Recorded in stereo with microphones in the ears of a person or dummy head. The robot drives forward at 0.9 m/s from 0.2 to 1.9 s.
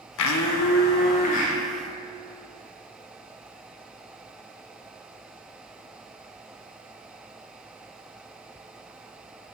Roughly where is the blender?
Left.